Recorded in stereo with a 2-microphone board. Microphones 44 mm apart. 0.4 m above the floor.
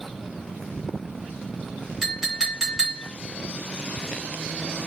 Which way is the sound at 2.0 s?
5° right (ahead or behind).